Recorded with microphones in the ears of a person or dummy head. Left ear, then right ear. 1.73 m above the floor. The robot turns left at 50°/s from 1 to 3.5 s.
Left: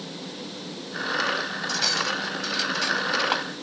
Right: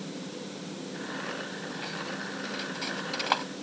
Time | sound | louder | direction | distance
1.7 | cutlery clinking | left 16 dB | 75° left (ahead or behind) | ?